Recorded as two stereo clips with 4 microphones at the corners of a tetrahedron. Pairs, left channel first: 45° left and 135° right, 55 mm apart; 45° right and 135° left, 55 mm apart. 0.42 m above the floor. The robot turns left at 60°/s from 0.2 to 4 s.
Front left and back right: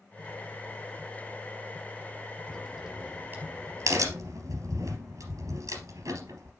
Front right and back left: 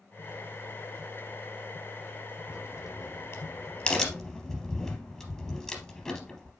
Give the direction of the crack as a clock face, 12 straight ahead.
1 o'clock.